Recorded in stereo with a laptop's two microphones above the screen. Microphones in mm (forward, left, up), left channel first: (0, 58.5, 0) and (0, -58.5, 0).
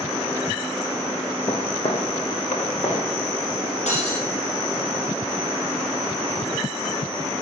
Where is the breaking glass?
80° left, 4.5 m.